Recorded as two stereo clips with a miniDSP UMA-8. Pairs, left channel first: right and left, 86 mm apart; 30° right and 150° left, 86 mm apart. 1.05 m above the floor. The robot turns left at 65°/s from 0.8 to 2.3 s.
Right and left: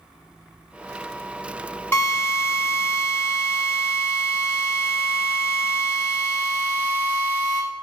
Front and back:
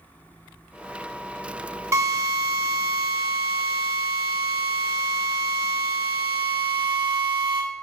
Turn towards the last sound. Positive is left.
turn(degrees=180)